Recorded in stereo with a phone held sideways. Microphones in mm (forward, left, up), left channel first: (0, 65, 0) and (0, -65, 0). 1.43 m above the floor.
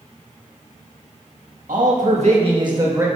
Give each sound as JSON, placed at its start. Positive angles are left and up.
{"t": 1.7, "sound": "a man speaking", "side_deg": -80, "distance_m": 1.9}